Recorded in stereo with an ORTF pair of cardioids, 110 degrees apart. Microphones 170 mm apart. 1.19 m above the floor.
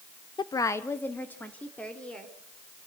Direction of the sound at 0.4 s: 25° left.